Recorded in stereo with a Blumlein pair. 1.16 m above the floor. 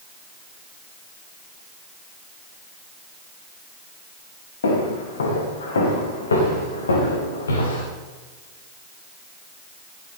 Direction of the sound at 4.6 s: 65° left.